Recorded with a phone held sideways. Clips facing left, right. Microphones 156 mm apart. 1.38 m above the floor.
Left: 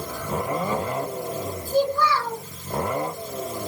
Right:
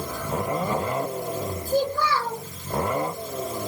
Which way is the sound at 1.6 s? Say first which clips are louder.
Left 3 dB; 50° right (ahead or behind).